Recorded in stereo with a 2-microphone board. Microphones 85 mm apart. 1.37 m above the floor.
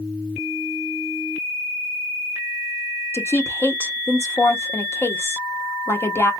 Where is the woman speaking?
30° left (ahead or behind), 1.0 m.